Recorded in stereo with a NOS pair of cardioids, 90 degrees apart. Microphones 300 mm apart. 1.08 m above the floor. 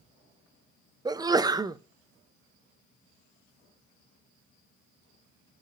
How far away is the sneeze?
About 0.5 m.